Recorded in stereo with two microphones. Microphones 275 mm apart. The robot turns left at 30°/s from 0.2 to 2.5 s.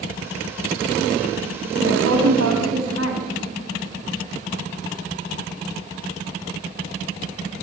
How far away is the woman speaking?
About 4 m.